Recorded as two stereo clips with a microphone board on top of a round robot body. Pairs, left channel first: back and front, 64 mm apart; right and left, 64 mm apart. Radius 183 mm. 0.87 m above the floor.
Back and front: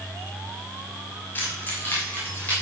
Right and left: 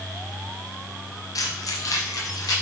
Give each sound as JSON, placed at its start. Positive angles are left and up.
{"t": 1.4, "sound": "keys jangling", "azimuth_deg": -120, "distance_m": 1.5}